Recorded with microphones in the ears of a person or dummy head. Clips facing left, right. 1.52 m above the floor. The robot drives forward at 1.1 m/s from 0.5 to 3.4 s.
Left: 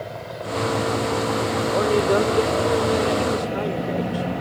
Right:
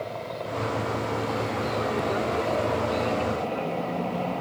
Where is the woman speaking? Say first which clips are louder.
Left 10 dB; 80° left; by 4.2 s 75° left (ahead or behind).